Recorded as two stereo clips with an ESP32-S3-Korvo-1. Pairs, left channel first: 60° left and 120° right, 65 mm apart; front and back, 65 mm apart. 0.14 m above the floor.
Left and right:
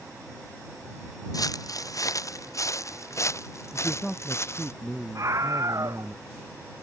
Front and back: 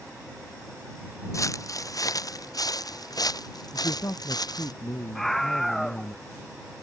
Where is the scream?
85° right.